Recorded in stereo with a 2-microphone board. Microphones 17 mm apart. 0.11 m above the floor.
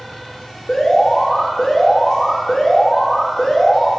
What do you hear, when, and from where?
0.7 s an alarm: 30° left (ahead or behind), 1.8 m